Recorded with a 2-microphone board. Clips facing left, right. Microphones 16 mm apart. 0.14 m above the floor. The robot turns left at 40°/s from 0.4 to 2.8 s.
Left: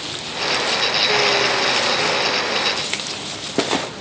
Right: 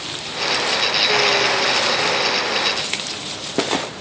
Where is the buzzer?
No buzzer in this recording.